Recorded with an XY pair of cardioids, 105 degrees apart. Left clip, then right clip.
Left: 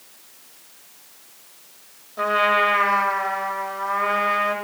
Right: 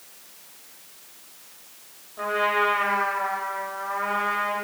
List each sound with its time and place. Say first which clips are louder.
2.2 s a trumpet: left 4 dB; 55° left, 0.9 m